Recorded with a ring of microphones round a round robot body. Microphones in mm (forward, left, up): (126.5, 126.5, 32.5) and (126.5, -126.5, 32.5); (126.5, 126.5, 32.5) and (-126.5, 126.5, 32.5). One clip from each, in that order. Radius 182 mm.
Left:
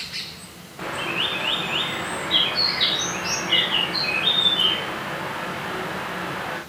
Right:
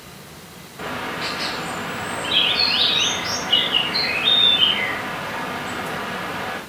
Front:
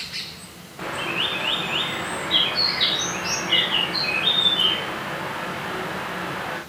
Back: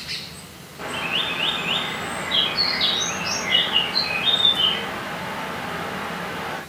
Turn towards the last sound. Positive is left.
turn(degrees=40)